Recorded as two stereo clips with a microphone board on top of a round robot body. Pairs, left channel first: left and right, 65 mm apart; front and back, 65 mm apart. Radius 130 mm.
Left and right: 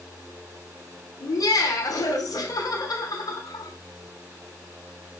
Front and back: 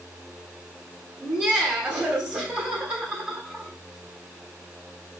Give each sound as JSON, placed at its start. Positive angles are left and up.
{"t": 1.2, "sound": "laughter", "azimuth_deg": 110, "distance_m": 4.0}